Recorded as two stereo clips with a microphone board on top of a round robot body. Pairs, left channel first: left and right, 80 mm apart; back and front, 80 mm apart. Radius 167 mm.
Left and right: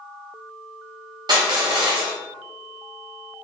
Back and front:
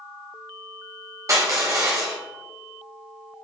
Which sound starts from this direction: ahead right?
Crushing, at 1.3 s.